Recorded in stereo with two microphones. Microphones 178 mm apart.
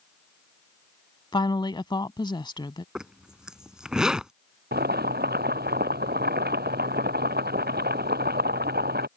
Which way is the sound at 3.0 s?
5° right (ahead or behind).